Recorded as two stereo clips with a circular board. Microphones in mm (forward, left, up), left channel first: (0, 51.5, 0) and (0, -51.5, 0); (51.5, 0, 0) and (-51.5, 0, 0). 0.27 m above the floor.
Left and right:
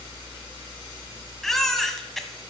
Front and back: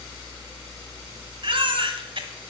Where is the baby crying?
175° left, 1.3 m.